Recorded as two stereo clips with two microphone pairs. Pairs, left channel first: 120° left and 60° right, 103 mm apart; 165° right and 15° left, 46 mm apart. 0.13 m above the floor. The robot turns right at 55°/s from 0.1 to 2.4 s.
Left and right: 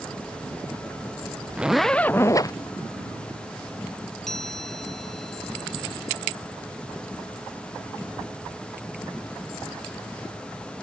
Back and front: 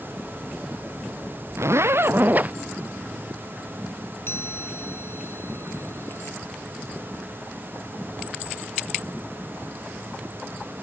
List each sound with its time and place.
1.6 s a zipper: 20° left; by 2.5 s 65° left
4.3 s a chime: 150° right